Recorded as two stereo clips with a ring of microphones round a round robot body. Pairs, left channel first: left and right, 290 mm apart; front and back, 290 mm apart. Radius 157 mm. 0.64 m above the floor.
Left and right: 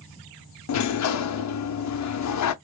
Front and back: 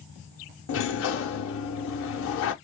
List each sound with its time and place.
0.7 s a sliding door: 55° left, 0.6 m